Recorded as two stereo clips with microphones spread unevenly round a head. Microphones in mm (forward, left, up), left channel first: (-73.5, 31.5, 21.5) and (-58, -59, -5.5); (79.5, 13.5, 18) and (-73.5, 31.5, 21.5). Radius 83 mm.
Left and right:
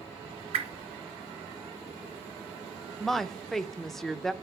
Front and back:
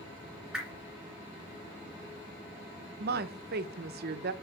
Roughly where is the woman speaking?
Behind.